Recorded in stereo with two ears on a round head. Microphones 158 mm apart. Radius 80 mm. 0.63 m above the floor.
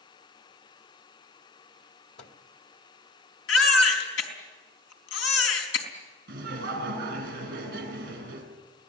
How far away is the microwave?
About 1.9 m.